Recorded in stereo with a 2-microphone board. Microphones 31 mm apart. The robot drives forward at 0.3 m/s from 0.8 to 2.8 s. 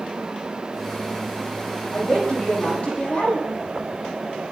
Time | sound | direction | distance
1.9 | a woman speaking | 45° left (ahead or behind) | 7.5 m